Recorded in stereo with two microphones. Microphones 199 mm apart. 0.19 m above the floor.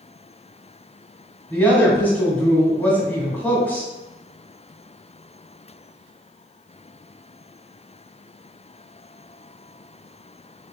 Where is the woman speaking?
10° left (ahead or behind), 1.5 m.